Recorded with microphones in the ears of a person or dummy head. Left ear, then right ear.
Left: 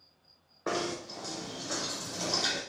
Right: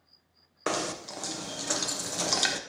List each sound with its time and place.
0.7 s knocking: 70° right (ahead or behind), 0.9 m